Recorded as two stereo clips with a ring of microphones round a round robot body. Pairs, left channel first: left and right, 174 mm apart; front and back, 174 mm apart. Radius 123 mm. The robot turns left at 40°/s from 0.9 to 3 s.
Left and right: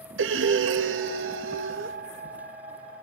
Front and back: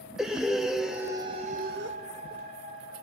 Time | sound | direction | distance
0.2 | breathing | 90° right | 0.5 m